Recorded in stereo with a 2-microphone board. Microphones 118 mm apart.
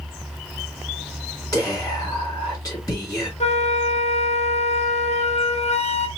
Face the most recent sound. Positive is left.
turn(degrees=65)  # may be behind; listen again after turning